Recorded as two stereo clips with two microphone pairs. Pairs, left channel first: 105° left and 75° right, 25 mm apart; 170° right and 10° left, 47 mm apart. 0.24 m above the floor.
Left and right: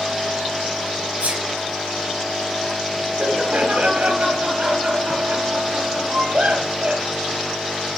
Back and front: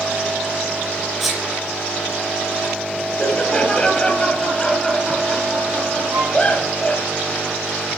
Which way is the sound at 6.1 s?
25° right.